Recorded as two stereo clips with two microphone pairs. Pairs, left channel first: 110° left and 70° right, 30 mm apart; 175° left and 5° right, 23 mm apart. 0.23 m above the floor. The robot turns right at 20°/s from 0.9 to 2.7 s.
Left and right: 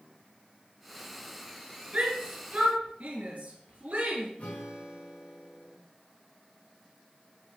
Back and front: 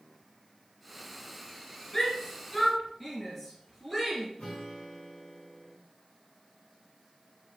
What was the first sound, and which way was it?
A shout, 115° right.